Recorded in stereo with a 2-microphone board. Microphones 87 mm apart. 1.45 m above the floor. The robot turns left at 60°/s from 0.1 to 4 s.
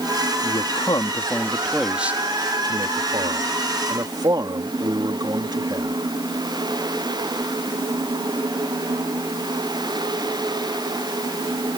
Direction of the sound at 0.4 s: 85° left.